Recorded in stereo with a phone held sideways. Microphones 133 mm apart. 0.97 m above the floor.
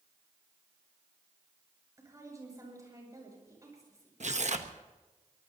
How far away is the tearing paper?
About 1.0 m.